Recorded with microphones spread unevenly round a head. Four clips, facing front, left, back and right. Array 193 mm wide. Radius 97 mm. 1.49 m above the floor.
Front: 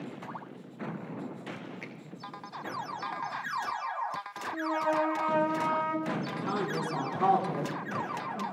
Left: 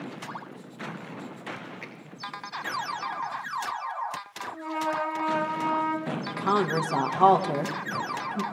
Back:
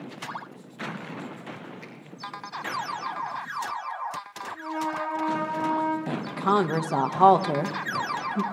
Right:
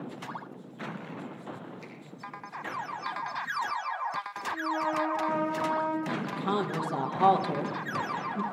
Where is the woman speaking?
165° left, 1.6 m.